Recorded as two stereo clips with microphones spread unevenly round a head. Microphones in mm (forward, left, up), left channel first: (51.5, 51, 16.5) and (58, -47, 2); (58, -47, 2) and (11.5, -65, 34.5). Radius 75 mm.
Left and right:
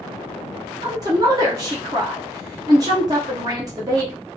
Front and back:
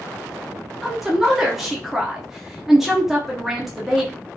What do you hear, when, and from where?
0.8 s a woman speaking: 140° right, 0.6 m